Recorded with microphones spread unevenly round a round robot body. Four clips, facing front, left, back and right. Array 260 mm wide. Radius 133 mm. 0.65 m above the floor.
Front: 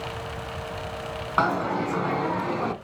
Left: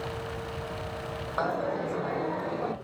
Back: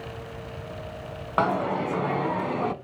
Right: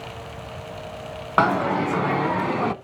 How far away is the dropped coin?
About 1.2 m.